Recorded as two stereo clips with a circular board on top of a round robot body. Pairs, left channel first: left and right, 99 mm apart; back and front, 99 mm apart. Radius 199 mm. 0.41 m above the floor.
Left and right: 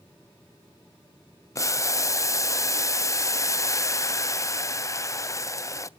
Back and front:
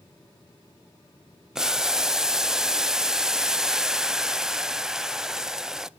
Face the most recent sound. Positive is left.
turn(degrees=80)